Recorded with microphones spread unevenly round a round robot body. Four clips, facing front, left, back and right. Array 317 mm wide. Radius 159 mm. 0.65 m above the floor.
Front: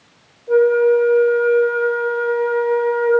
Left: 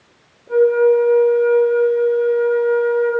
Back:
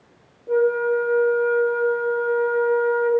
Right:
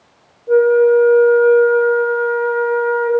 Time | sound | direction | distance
0.5 | a flute | 145° right | 1.3 m